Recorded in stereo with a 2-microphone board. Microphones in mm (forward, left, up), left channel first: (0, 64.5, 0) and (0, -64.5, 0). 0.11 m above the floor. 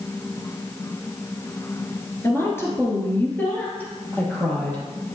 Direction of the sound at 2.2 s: 20° left (ahead or behind).